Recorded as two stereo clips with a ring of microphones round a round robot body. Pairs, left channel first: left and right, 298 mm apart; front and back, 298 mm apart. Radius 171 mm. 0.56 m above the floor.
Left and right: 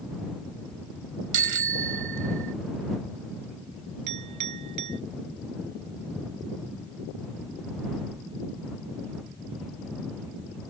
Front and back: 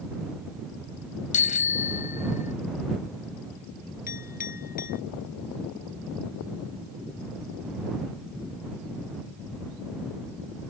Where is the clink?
65° right.